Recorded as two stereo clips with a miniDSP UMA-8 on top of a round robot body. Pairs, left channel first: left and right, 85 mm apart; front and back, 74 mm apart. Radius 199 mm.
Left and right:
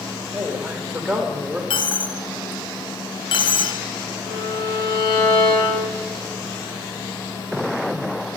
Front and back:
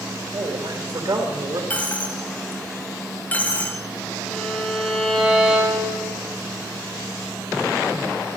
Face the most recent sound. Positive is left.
turn(degrees=95)